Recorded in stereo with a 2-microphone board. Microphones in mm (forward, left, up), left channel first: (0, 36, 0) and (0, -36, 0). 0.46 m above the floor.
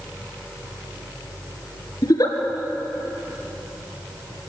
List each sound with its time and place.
2.0 s a giggle: 60° left (ahead or behind), 2.5 m